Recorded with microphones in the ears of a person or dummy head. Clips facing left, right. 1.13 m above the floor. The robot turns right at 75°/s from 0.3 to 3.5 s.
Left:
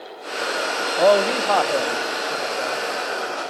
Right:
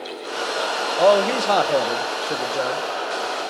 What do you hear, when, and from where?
1.0 s a man speaking: 170° left, 0.8 m; by 2.8 s 55° right, 0.8 m